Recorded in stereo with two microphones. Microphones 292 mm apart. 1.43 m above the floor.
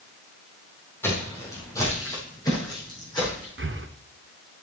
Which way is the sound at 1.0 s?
10° left (ahead or behind).